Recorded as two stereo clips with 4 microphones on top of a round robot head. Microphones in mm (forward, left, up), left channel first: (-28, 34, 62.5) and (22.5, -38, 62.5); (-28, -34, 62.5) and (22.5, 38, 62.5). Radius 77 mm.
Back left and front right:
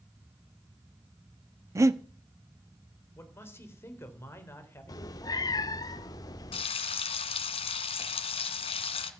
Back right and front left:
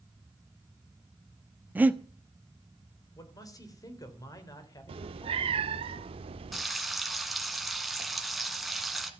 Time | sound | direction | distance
1.8 | breathing | 10° right | 1.2 m
3.2 | a man speaking | 175° right | 3.5 m
4.9 | a cat meowing | 75° left | 0.8 m
6.5 | frying | 145° left | 1.8 m